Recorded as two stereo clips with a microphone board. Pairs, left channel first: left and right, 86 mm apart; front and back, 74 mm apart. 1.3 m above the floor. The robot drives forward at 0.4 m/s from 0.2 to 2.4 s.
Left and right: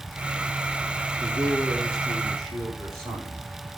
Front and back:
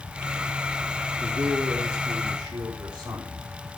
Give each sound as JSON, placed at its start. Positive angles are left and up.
{"t": 1.2, "sound": "a man speaking", "azimuth_deg": 155, "distance_m": 3.5}